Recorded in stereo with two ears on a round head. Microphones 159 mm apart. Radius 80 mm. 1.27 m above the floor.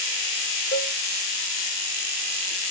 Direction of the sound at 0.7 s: 65° left (ahead or behind).